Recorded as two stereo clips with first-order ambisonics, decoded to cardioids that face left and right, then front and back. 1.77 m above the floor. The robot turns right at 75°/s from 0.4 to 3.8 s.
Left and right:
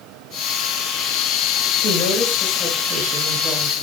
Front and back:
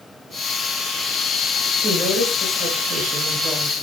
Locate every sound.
1.8 s a woman speaking: 115° left, 1.6 m; by 3.8 s 100° right, 1.6 m